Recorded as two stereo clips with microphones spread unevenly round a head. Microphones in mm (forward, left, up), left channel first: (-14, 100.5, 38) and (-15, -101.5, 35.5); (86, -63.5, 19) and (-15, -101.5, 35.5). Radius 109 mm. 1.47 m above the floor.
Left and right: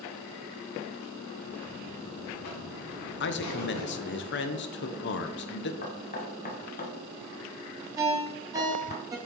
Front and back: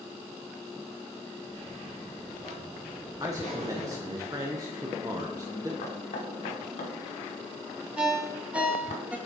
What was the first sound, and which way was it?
A buzzer, 85° left.